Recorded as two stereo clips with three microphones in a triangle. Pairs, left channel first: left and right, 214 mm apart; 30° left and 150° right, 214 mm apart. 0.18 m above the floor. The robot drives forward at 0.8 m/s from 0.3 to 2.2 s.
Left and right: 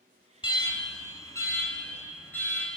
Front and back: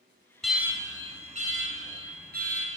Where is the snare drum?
I don't hear a snare drum.